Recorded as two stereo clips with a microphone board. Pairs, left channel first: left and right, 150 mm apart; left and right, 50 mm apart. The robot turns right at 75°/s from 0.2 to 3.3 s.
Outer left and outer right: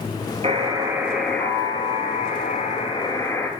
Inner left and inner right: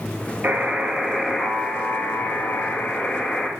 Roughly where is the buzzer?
Ahead right.